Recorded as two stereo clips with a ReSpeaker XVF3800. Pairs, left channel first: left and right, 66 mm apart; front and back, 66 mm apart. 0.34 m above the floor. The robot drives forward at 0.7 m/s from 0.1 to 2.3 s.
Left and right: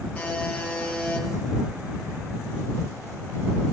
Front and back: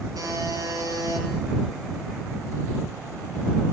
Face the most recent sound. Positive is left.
turn(degrees=165)